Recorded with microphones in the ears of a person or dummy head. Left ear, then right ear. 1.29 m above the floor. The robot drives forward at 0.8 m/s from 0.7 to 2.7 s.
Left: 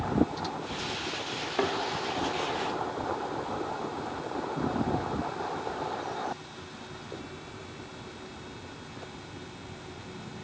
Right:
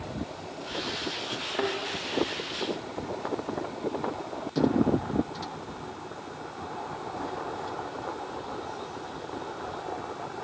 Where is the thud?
5° left (ahead or behind), 1.6 m.